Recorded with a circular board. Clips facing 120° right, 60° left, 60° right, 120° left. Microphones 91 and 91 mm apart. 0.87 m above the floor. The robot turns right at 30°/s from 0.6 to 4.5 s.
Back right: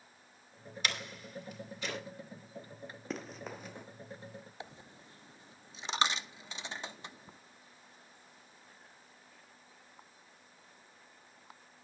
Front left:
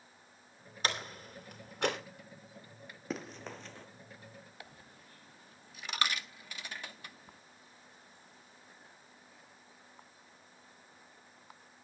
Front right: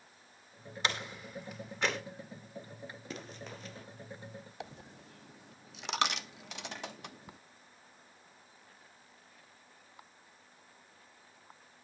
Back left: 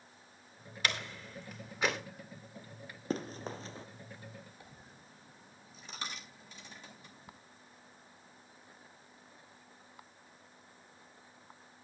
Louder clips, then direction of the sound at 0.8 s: Front left 3 dB, front right 1 dB; 5° left.